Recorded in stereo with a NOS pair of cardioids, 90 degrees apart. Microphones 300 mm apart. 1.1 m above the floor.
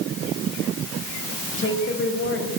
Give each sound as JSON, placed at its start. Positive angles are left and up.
{"t": 1.6, "sound": "a woman speaking", "azimuth_deg": 40, "distance_m": 6.5}